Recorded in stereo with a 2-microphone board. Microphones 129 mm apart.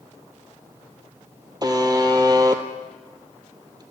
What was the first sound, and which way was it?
A buzzer, 30° right (ahead or behind).